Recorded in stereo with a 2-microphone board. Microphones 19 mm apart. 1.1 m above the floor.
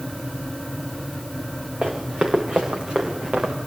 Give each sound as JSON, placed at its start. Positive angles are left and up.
{"t": 1.8, "sound": "running footsteps", "side_deg": -50, "distance_m": 6.5}